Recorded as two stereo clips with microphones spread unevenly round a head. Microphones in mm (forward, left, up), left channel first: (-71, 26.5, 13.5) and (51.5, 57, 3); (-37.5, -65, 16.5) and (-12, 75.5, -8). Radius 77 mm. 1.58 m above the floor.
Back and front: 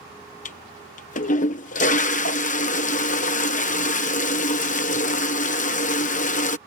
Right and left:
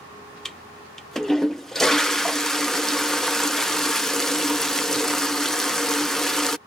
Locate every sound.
0.5 s a toilet flushing: 170° left